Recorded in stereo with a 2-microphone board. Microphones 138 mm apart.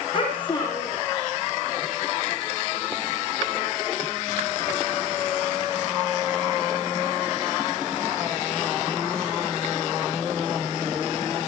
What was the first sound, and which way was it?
A child speaking, 40° left (ahead or behind).